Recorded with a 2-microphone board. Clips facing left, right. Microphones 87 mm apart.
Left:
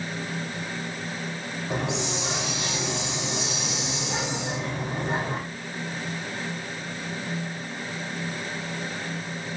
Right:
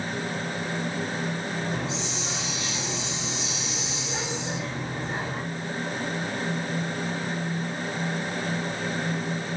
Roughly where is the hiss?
Left.